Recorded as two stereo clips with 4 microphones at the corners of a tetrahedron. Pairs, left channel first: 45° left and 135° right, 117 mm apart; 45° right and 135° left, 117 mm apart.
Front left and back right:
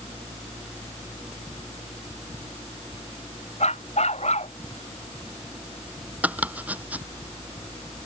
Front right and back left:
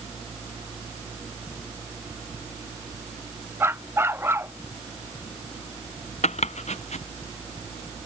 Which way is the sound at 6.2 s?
60° right.